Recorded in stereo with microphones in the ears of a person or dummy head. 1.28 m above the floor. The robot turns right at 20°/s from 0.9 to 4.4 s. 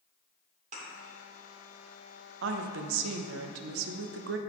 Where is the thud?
45° right (ahead or behind), 2 m.